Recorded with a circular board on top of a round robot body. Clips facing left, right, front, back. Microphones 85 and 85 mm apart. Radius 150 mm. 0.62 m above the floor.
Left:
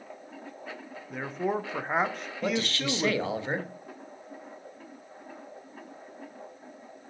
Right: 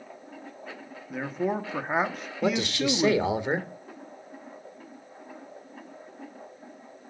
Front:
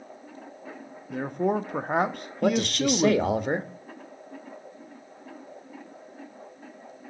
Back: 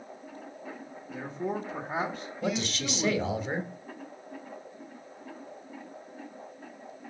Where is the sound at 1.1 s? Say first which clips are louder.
Right 1 dB, front 7 dB; straight ahead, 0.8 m.